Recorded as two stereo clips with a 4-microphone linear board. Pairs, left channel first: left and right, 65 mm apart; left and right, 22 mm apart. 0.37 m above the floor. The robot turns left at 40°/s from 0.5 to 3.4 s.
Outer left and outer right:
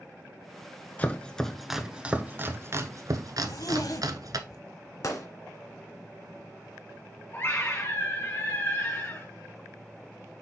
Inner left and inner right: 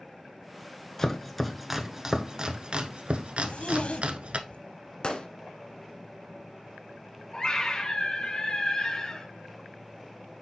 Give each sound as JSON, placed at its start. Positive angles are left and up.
{"t": 1.0, "sound": "chopping", "side_deg": 25, "distance_m": 0.8}
{"t": 3.4, "sound": "a zipper", "side_deg": 70, "distance_m": 0.8}
{"t": 5.0, "sound": "a gunshot", "side_deg": 55, "distance_m": 1.4}
{"t": 7.3, "sound": "a scream", "side_deg": 40, "distance_m": 1.5}